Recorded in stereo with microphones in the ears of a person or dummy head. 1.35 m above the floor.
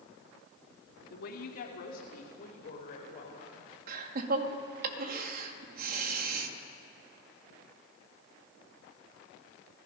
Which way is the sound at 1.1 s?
60° left (ahead or behind).